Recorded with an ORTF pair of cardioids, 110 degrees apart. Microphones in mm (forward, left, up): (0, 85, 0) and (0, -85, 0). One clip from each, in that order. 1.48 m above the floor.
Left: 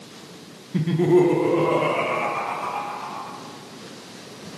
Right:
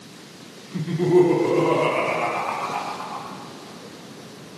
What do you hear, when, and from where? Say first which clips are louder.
0.7 s laughter: even; 35° left, 0.7 m; by 3.4 s 30° right, 2 m